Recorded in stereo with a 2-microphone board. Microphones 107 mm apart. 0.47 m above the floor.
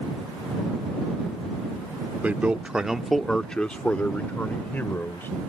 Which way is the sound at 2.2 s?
15° right (ahead or behind).